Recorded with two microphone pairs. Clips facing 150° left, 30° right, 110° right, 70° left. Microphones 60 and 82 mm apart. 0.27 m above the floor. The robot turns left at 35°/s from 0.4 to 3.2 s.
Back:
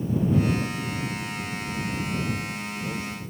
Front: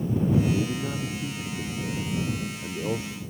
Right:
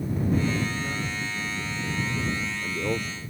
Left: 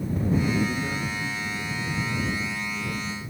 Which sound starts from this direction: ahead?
A man speaking, at 0.5 s.